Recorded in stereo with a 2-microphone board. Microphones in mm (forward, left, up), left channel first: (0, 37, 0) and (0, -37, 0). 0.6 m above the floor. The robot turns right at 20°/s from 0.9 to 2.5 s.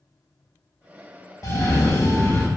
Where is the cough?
45° left (ahead or behind), 0.8 m; by 2.5 s 35° left (ahead or behind), 0.8 m.